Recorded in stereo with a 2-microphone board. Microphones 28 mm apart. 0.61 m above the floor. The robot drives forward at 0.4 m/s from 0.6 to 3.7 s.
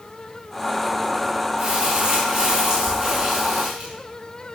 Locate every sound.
1.6 s crumpling: 45° right (ahead or behind), 5.5 m; by 3.9 s 40° right (ahead or behind), 6 m